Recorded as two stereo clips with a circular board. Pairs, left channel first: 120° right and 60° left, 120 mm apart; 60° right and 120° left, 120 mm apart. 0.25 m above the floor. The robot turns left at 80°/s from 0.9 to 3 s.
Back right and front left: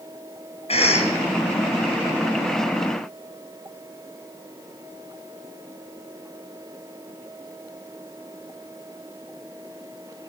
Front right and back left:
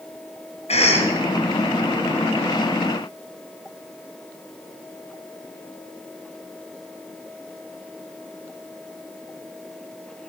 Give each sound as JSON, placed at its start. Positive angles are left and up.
{"t": 0.7, "sound": "a cough", "azimuth_deg": -90, "distance_m": 5.0}